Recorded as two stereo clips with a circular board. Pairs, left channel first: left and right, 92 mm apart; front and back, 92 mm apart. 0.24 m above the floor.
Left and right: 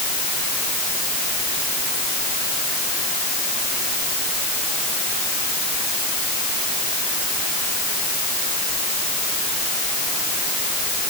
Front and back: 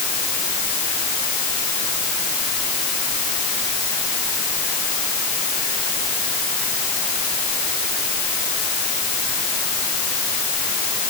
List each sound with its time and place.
Only background noise.